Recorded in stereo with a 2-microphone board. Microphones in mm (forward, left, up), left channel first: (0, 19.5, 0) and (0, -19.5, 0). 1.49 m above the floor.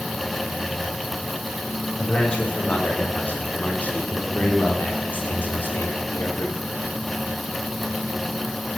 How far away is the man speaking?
About 6.5 m.